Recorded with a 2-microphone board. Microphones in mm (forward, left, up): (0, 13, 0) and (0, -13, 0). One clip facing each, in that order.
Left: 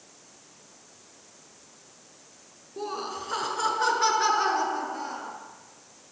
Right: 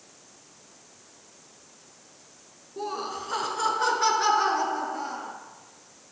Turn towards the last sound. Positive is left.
turn(degrees=5)  # may be behind; listen again after turning